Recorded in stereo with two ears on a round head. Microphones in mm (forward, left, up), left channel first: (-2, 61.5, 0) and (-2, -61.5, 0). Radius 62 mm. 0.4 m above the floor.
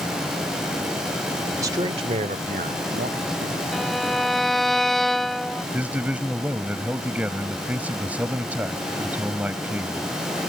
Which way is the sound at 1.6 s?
20° right (ahead or behind).